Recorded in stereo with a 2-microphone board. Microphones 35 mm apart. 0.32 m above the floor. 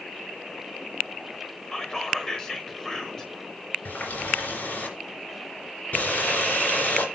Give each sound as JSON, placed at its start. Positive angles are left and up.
{"t": 1.7, "sound": "whispering", "side_deg": 15, "distance_m": 1.0}
{"t": 3.9, "sound": "a running tap", "side_deg": 60, "distance_m": 3.0}